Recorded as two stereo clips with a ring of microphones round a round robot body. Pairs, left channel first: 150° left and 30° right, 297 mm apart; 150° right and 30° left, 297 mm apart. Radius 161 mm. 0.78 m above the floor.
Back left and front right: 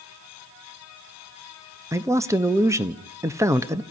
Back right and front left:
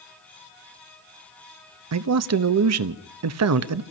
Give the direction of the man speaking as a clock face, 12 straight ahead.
10 o'clock.